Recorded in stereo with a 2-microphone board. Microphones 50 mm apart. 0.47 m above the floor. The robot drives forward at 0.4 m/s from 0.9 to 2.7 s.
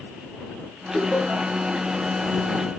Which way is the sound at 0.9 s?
25° left (ahead or behind).